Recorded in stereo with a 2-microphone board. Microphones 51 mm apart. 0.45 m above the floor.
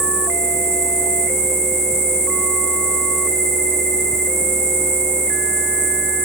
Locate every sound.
0.0 s an insect: 70° left (ahead or behind), 7 m